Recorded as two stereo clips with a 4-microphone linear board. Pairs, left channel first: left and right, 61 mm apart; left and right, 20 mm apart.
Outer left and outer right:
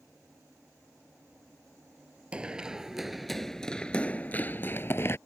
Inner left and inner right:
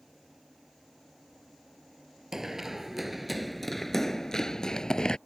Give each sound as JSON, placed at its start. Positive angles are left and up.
{"t": 2.3, "sound": "running footsteps", "side_deg": -20}